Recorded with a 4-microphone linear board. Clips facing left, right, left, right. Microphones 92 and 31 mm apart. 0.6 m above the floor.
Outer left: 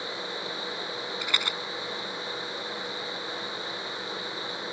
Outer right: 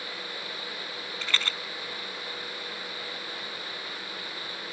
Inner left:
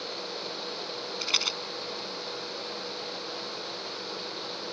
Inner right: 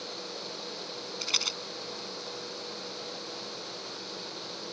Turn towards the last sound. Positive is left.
turn(degrees=15)  # may be behind; listen again after turning